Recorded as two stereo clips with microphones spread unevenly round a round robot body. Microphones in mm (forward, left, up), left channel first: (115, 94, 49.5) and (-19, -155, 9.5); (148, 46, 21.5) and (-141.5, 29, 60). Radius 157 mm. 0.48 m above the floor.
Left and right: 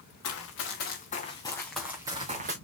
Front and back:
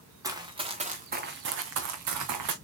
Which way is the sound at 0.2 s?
105° left.